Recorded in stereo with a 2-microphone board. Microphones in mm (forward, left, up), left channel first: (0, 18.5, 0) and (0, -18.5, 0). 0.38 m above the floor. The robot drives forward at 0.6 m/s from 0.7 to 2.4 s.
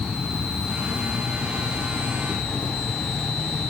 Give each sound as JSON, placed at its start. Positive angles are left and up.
{"t": 0.0, "sound": "an insect", "side_deg": -20}